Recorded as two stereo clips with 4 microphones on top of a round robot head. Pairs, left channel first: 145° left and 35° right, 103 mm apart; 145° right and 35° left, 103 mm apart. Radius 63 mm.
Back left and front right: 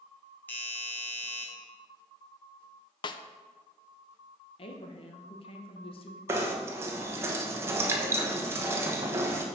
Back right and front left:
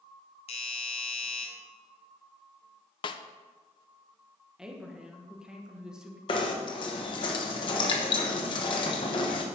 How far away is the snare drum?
About 0.5 m.